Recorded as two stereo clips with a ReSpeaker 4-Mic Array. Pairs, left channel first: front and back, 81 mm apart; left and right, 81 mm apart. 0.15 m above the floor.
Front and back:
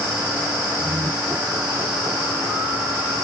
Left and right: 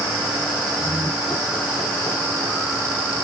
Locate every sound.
0.8 s laughter: 140° left, 7.5 m